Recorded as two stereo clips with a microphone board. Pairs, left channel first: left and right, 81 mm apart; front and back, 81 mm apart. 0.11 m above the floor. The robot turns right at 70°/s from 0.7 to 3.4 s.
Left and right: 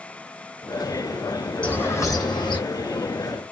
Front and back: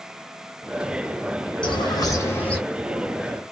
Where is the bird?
10° left, 1.0 m; by 2.6 s 80° left, 1.0 m.